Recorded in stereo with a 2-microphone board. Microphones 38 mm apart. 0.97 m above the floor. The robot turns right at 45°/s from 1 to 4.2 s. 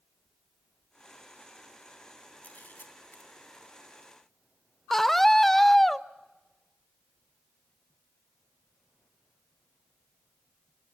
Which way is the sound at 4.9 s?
10° left (ahead or behind).